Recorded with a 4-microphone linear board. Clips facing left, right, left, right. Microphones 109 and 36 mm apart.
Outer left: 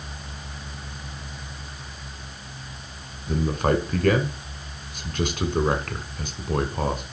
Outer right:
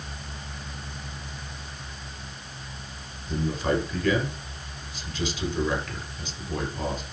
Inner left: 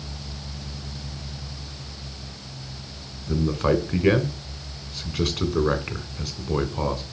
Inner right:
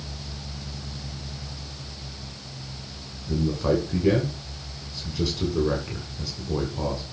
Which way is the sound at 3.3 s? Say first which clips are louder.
Outer left 3 dB, inner left 2 dB; 55° left (ahead or behind).